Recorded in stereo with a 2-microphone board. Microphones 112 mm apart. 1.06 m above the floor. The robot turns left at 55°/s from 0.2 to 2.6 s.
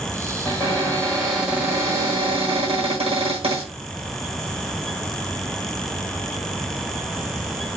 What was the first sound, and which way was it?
A cupboard door, 45° left.